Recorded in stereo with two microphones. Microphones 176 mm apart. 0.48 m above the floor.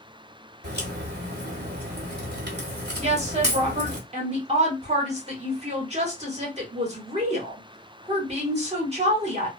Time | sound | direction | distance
0.6 | a crack | 70° right (ahead or behind) | 1.2 m
3.0 | a woman speaking | 40° right (ahead or behind) | 1.2 m